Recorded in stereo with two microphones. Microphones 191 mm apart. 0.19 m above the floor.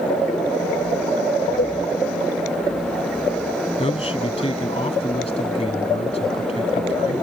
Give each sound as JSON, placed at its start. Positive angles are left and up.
{"t": 1.6, "sound": "a cowbell", "side_deg": 50}
{"t": 3.8, "sound": "a man speaking", "side_deg": 30}